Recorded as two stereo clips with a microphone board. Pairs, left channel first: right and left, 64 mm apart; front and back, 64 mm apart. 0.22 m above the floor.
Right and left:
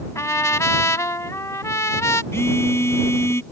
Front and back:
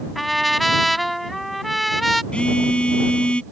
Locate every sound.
0.1 s a trumpet: 90° right
2.3 s a phone buzzing: 70° right